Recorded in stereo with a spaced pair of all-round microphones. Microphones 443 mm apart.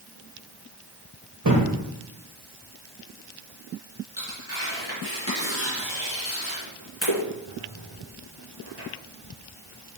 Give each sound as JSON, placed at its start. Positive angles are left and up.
{"t": 1.4, "sound": "a thud", "side_deg": -40, "distance_m": 2.5}
{"t": 4.2, "sound": "tearing paper", "side_deg": 70, "distance_m": 3.0}